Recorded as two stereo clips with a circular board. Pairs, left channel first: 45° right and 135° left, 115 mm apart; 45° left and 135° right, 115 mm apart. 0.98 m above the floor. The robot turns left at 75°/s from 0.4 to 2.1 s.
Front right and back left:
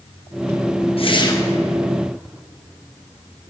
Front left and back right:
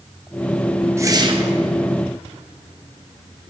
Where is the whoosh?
70° right, 0.9 m; by 1.5 s 115° right, 0.9 m.